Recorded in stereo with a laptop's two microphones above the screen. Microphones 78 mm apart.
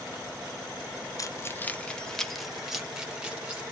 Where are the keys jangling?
45° left (ahead or behind), 0.6 m; by 3.6 s 15° right (ahead or behind), 1.7 m.